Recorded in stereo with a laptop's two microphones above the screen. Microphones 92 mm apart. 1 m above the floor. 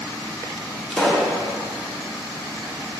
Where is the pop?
5° left (ahead or behind), 1.0 m.